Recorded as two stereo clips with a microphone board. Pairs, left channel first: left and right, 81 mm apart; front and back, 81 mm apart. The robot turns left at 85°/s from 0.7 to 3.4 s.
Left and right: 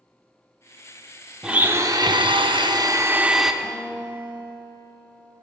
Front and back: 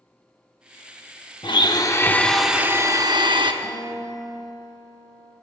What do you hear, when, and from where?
1.4 s a blender: 5° right, 0.6 m; by 3.5 s 175° right, 0.6 m
3.6 s a guitar: 140° left, 3.5 m